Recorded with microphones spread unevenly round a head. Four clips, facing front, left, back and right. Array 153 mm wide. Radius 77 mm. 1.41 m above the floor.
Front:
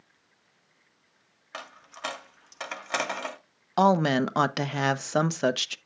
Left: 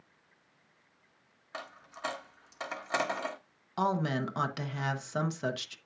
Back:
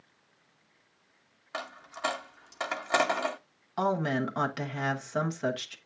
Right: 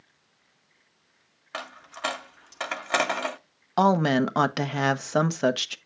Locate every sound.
1.5 s a dropped coin: 120° right, 0.8 m
3.8 s a woman speaking: 55° right, 0.9 m